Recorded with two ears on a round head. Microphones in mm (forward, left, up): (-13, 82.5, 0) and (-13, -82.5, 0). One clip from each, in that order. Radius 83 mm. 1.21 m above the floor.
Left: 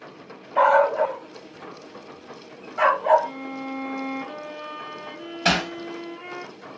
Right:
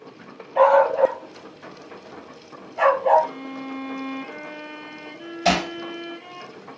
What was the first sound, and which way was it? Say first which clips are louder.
A dog barking: right 2 dB; 20° left (ahead or behind).